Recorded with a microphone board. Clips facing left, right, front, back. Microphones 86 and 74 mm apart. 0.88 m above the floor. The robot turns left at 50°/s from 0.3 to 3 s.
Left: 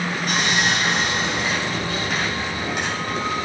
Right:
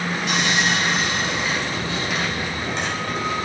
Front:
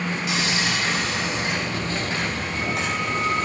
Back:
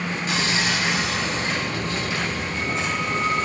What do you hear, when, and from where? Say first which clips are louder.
0.3 s sawing: even, back 2 dB; 135° left, 8 m; by 3.5 s straight ahead, 8 m